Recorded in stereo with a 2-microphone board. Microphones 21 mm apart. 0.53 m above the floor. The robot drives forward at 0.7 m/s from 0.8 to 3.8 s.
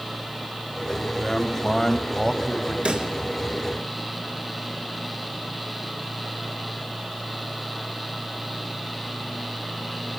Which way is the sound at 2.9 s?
75° right (ahead or behind).